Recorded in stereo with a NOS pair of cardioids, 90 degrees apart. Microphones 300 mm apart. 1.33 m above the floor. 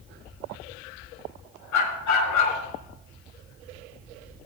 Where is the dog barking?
70° left, 5.5 m.